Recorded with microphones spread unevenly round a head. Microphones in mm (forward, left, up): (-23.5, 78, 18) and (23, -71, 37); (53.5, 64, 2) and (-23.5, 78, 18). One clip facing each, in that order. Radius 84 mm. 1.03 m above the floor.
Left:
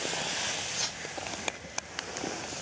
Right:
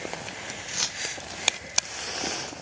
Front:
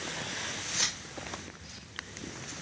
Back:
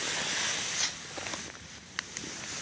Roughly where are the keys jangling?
Ahead right.